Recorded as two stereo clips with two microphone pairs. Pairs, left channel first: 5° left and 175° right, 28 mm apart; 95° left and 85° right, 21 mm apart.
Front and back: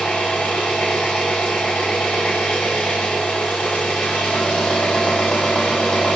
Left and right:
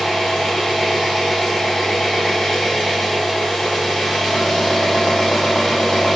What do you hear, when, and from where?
0.0 s an engine running: 40° left, 1.9 m